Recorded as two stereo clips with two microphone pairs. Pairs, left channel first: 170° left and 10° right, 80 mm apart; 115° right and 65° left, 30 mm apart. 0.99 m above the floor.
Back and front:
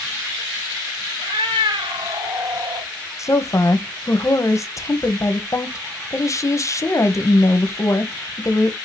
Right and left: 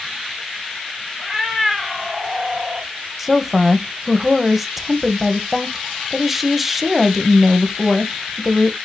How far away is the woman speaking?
About 0.8 m.